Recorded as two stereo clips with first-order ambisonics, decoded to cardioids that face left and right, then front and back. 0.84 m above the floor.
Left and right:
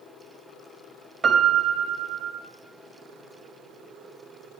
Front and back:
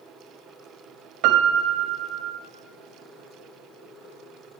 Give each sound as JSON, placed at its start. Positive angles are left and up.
{"t": 1.2, "sound": "a piano", "azimuth_deg": -165, "distance_m": 1.2}